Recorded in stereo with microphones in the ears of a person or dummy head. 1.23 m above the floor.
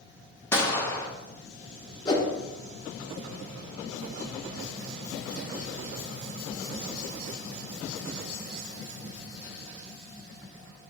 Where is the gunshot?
15° left (ahead or behind), 0.6 m.